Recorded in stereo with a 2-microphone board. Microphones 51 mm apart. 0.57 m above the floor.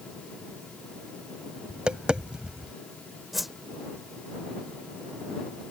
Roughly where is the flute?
No flute in this recording.